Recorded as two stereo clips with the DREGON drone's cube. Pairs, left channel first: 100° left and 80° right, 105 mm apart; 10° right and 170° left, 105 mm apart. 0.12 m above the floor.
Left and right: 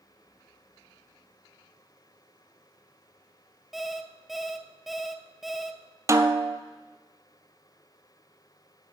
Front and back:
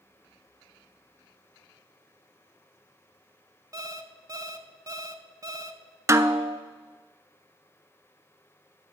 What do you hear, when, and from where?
3.7 s an alarm clock: 165° right, 0.6 m
6.1 s a snare drum: 130° right, 0.5 m